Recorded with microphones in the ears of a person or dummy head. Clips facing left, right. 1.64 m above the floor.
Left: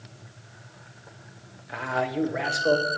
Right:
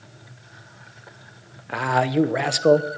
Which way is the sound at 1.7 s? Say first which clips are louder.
Right 6 dB; 60° right (ahead or behind).